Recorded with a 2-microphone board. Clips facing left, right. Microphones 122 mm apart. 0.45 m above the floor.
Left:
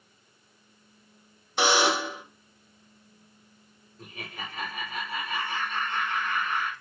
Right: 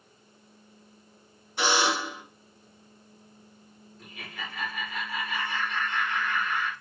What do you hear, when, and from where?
1.6 s a buzzer: 80° left, 0.7 m
4.0 s laughter: 35° left (ahead or behind), 0.9 m